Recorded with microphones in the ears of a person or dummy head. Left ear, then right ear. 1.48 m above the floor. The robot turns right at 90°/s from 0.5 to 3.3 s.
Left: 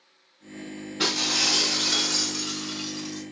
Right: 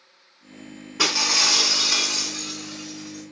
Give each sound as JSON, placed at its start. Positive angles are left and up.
{"t": 1.0, "sound": "breaking glass", "azimuth_deg": -125, "distance_m": 3.5}